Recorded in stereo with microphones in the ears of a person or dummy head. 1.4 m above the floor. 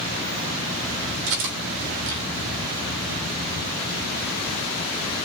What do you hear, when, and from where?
1.3 s cutlery clinking: 70° right (ahead or behind), 3 m